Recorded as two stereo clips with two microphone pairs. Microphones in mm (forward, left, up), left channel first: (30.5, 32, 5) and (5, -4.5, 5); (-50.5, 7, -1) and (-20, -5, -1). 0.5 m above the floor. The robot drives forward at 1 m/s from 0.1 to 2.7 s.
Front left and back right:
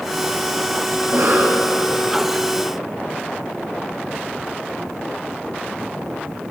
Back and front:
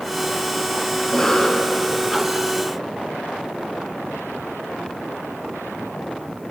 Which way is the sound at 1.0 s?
135° right.